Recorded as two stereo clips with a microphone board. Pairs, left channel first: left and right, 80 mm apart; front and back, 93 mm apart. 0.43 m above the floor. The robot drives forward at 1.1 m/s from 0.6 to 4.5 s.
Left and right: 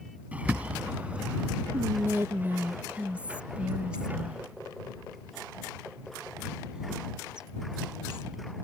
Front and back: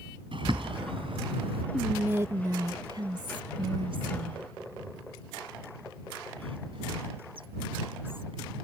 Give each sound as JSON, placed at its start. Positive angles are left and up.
{"t": 0.3, "sound": "a bird", "azimuth_deg": -160}
{"t": 1.7, "sound": "whispering", "azimuth_deg": -95}